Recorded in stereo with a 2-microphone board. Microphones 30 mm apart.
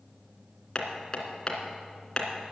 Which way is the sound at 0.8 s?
30° left (ahead or behind).